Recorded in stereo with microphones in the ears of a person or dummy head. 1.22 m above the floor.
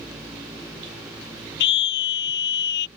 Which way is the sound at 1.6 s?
60° left (ahead or behind).